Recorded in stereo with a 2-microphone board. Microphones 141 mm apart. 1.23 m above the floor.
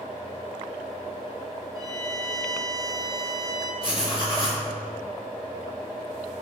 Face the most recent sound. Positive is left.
turn(degrees=40)  # may be behind; listen again after turning